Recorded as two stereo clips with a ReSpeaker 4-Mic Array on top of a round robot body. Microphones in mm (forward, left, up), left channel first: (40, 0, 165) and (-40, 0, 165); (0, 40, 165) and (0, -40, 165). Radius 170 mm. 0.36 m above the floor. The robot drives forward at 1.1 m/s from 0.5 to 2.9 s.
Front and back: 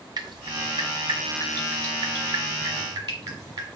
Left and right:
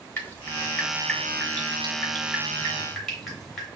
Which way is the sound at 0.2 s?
150° left.